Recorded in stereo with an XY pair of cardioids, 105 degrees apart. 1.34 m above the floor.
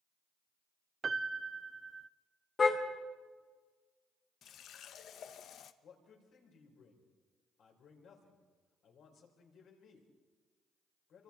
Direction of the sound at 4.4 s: 70° left.